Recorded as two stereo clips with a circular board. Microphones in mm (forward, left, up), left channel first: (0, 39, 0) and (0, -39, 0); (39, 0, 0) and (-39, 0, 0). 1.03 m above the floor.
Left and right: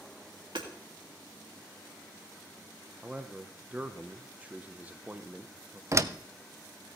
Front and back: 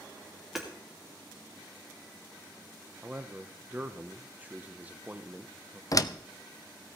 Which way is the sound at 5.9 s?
40° right.